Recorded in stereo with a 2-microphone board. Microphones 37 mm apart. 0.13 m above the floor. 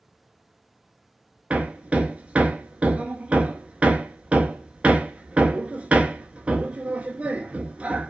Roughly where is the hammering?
Right.